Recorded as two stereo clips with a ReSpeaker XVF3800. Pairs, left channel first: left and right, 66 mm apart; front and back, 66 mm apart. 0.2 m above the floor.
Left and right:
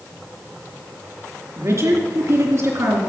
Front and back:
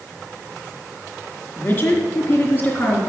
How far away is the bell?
I don't hear a bell.